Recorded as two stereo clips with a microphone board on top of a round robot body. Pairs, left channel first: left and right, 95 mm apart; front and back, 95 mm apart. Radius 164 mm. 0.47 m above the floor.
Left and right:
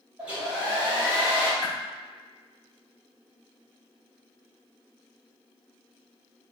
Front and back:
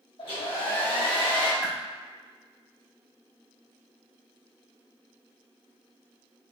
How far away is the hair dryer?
About 2.0 m.